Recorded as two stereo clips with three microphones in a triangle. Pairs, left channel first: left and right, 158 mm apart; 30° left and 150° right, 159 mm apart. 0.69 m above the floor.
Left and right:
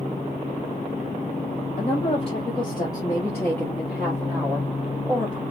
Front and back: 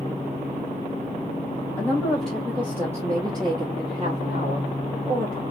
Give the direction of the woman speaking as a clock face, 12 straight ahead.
9 o'clock.